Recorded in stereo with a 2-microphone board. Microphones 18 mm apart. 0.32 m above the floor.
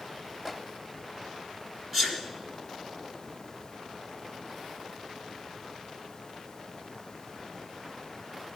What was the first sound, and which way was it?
A microwave, 10° right (ahead or behind).